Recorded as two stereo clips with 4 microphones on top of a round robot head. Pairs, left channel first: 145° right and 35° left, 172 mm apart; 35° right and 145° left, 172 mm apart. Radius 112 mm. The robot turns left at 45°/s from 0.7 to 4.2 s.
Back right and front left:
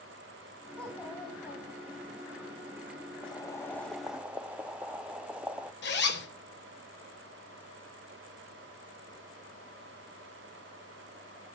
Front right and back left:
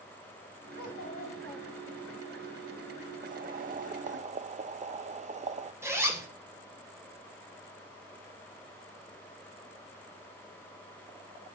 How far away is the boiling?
About 0.9 m.